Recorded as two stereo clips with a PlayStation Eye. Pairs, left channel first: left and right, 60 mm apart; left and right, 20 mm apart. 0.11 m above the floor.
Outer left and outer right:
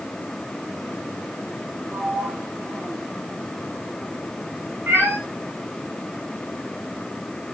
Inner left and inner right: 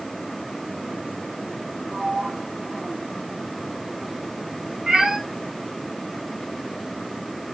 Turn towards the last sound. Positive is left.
turn(degrees=-40)  # may be behind; listen again after turning